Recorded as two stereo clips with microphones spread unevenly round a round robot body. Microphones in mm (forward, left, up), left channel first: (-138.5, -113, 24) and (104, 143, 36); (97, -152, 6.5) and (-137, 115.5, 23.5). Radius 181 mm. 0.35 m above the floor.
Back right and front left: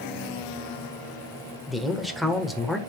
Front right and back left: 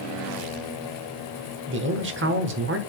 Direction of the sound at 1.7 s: 140° left.